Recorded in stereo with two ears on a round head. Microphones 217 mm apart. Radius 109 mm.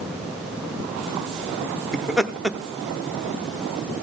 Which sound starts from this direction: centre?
Laughter, at 1.9 s.